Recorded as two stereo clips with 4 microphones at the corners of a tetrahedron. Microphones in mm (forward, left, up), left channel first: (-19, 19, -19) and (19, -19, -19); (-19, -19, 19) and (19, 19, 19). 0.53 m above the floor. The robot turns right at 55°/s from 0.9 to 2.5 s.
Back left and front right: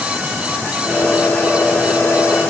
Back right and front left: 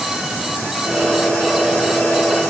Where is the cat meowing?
No cat meowing in this recording.